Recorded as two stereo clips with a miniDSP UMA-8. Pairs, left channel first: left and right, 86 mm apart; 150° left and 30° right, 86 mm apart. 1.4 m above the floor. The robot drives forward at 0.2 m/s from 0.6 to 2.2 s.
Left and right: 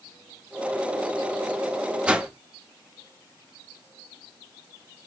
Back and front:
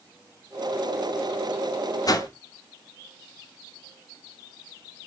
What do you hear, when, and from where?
2.1 s a whoosh: 165° right, 0.6 m; by 2.3 s 170° right, 0.6 m